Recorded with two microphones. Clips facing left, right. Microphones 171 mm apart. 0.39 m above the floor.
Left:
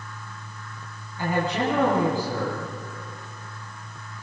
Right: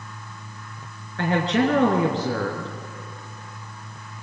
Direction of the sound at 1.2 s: 80° right.